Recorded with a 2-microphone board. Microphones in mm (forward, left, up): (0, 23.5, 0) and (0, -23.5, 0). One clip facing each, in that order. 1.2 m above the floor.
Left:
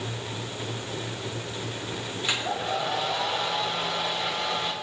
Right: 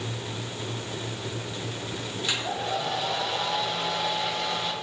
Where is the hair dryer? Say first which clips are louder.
Left 1 dB; 20° left (ahead or behind), 4 m.